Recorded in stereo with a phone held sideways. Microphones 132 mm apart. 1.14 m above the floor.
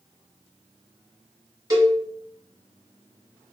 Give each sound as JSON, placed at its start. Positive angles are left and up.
{"t": 1.7, "sound": "a cowbell", "side_deg": -30, "distance_m": 1.5}